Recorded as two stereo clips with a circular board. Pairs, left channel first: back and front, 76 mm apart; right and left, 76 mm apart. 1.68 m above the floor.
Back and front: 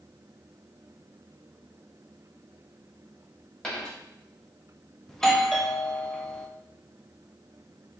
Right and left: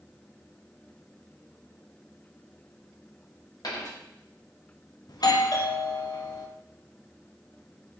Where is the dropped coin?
100° right, 2.0 m.